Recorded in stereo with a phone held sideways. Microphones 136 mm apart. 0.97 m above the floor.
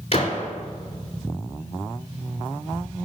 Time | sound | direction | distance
0.1 | a gunshot | 50° left (ahead or behind) | 2.5 m